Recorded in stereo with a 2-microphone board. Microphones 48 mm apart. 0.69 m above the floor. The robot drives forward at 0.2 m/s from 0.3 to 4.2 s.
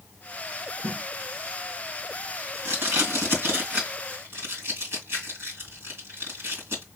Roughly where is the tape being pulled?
Right.